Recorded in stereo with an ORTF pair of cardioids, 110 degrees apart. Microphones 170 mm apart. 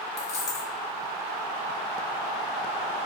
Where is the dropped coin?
40° left, 1.4 m.